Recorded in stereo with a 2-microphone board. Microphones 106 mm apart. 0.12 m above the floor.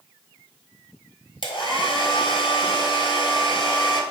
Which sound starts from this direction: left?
A hair dryer, at 1.4 s.